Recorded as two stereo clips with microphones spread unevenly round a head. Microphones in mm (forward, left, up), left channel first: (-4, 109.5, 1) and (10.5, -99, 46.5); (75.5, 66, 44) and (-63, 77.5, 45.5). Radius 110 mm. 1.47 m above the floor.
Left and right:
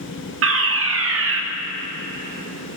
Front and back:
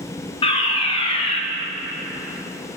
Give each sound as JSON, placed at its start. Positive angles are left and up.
{"t": 0.4, "sound": "a fire alarm", "azimuth_deg": -60, "distance_m": 1.8}